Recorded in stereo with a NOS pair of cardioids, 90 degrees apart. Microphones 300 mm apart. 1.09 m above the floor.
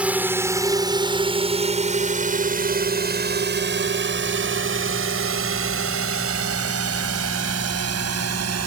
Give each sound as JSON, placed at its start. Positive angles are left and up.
{"t": 0.0, "sound": "a drone", "azimuth_deg": -5}